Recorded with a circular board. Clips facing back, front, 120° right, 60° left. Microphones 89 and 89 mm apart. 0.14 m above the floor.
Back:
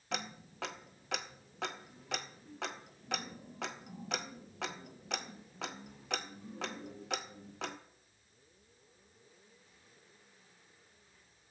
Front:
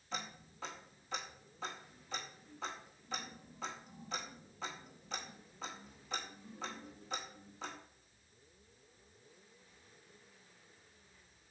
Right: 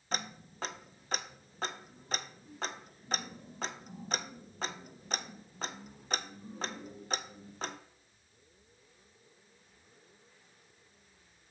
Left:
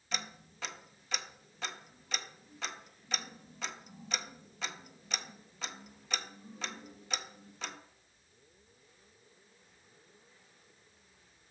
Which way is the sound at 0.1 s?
170° right.